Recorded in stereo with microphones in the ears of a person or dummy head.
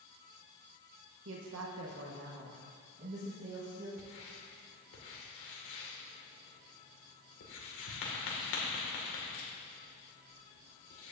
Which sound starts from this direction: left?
Writing, at 4.0 s.